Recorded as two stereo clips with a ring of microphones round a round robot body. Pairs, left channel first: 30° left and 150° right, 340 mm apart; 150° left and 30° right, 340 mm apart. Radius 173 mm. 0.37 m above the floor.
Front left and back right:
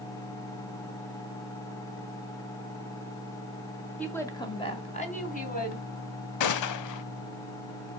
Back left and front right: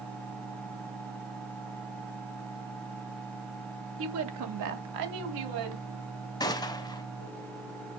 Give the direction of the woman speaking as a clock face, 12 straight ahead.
2 o'clock.